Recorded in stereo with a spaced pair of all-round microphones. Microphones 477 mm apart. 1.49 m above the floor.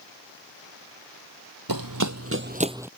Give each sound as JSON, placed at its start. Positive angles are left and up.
{"t": 1.7, "sound": "running footsteps", "side_deg": -45}